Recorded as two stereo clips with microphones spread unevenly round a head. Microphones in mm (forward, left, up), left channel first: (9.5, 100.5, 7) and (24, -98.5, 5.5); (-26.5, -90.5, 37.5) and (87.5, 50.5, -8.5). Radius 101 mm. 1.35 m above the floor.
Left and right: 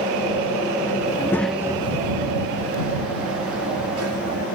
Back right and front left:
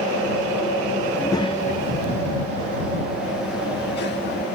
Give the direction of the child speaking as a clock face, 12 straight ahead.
7 o'clock.